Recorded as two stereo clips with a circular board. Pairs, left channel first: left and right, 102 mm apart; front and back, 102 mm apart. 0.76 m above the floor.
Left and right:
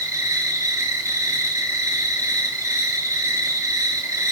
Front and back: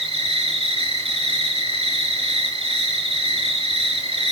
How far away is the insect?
About 5.5 m.